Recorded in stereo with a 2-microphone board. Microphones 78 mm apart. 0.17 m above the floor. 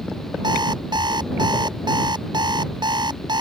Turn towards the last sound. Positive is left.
turn(degrees=-75)  # may be behind; listen again after turning